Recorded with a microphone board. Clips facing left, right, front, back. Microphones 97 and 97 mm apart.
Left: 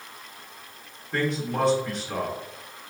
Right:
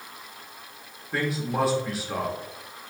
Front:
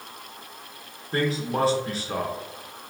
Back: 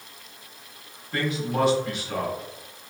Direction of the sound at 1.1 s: 10° right.